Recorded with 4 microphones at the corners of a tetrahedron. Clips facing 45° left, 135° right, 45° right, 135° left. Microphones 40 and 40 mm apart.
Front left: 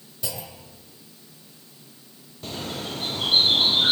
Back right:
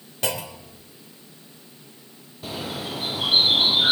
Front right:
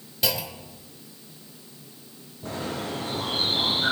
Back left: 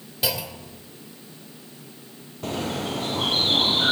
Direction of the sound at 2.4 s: 145° left.